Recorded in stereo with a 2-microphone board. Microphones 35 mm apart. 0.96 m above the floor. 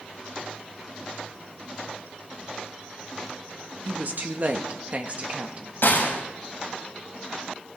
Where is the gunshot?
70° left (ahead or behind), 3.5 m.